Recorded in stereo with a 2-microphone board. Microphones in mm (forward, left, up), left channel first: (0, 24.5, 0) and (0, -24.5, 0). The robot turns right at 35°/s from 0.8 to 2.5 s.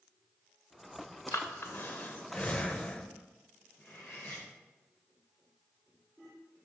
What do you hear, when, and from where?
1.3 s breathing: 65° left (ahead or behind), 0.8 m; by 3.1 s 25° left (ahead or behind), 0.8 m
3.8 s cutlery clinking: 60° left (ahead or behind), 3 m